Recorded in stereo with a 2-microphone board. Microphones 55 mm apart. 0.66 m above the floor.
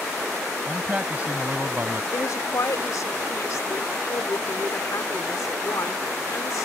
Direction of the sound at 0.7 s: 20° right (ahead or behind).